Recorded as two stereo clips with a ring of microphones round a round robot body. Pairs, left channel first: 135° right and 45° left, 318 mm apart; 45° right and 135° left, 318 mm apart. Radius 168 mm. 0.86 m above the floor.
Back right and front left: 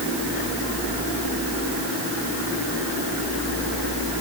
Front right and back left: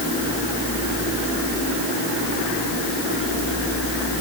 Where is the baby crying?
I don't hear a baby crying.